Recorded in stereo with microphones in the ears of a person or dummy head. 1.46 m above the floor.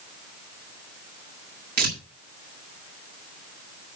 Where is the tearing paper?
60° right (ahead or behind), 2 m.